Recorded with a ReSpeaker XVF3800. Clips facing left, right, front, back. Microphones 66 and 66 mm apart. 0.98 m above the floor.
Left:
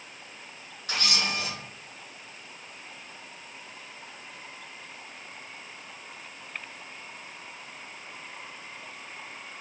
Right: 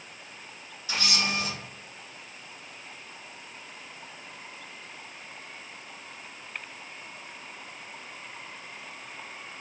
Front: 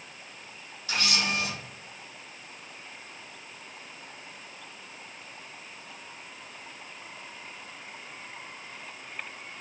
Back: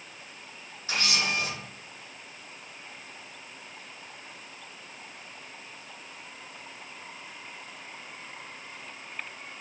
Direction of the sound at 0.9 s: 120° left.